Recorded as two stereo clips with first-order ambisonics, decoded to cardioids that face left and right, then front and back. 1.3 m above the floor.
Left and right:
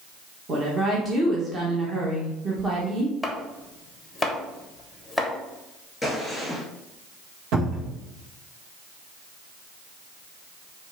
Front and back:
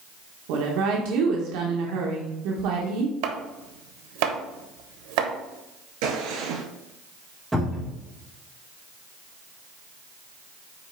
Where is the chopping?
175° left, 1.1 m.